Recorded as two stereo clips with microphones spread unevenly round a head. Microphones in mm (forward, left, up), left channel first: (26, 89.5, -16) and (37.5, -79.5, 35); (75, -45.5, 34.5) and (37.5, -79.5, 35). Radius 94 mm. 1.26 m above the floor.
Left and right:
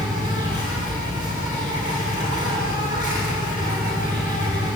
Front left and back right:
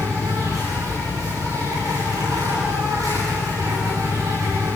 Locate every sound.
0.0 s an insect: 155° right, 8.5 m